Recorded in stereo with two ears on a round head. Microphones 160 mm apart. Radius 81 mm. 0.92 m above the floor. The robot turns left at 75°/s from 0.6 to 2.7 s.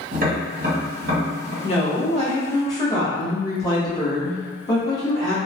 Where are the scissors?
No scissors in this recording.